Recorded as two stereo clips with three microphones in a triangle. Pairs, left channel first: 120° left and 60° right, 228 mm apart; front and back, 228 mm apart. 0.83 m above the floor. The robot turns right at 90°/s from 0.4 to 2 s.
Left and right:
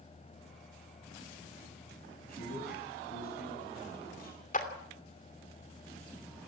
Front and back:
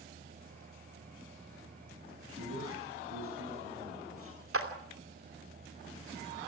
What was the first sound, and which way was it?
A man speaking, 170° left.